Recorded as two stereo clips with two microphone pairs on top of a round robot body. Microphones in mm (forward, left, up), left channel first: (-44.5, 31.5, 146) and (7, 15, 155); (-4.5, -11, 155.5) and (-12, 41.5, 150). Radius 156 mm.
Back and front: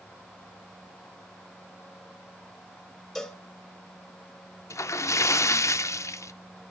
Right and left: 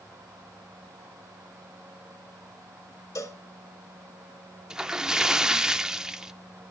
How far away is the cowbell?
About 3 m.